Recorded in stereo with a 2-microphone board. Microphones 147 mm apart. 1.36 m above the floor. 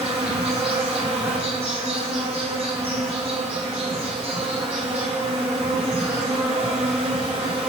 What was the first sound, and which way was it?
An insect, 45° right (ahead or behind).